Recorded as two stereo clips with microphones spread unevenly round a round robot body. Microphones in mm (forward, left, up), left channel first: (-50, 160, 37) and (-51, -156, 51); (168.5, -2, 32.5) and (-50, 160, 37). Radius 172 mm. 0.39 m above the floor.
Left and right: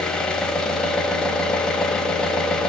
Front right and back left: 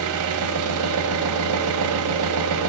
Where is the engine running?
175° left, 2.0 m.